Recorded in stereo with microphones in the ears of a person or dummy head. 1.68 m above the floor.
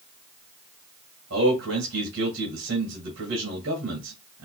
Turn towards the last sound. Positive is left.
turn(degrees=-70)  # may be behind; listen again after turning